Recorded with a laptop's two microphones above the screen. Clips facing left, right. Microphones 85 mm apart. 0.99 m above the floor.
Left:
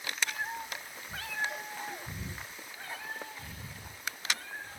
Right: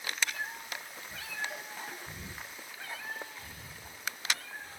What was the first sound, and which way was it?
A cat meowing, 30° left (ahead or behind).